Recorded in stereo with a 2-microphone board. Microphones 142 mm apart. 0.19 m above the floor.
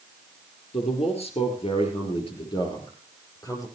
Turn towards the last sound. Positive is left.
turn(degrees=25)  # may be behind; listen again after turning